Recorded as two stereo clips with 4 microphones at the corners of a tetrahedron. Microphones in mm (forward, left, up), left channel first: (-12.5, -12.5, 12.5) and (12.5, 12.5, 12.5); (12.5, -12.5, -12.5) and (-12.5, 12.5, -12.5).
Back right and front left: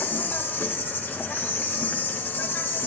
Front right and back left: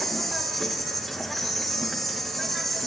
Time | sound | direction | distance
0.0 | an insect | 135° right | 1.0 m